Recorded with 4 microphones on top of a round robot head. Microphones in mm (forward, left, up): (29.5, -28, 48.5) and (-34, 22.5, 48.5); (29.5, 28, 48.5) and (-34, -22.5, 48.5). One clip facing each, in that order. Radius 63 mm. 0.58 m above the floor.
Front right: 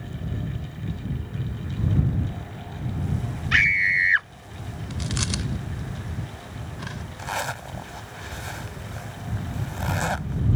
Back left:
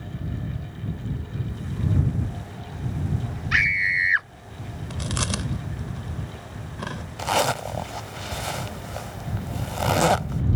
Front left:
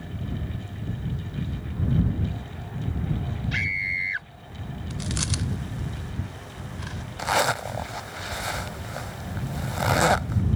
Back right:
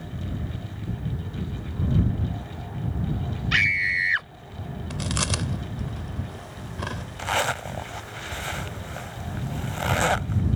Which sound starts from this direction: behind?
Chewing, at 4.9 s.